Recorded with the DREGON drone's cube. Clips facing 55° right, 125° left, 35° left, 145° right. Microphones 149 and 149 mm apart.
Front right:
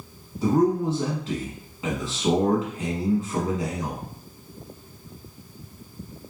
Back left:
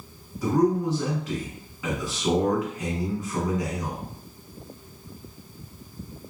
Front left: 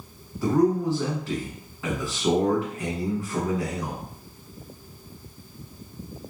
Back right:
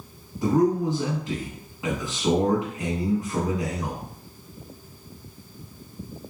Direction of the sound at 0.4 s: 90° right.